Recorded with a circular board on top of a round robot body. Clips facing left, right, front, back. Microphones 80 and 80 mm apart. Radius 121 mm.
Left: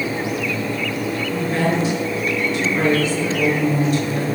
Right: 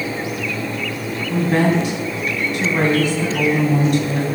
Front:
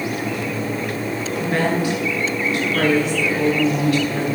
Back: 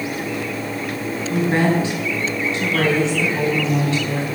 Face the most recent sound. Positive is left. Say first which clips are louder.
# right 5 dB, back 3 dB
turn(degrees=-120)